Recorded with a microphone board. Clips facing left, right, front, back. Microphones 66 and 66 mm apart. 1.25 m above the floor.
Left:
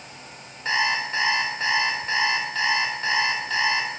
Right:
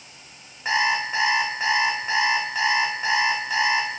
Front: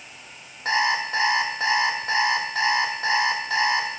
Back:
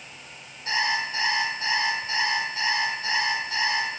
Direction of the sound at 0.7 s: 10° right.